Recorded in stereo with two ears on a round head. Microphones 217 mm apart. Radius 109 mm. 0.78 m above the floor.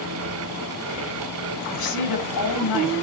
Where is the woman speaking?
80° left, 8 m.